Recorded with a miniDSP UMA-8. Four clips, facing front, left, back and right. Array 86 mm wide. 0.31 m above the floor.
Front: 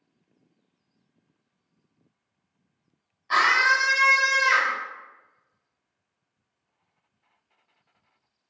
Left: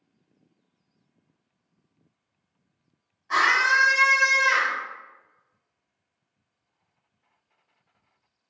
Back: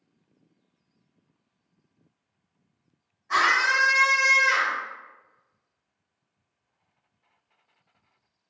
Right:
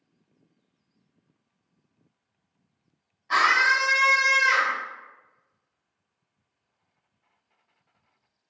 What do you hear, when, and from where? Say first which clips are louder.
3.3 s a scream: even, front 1 dB; 15° right, 1.4 m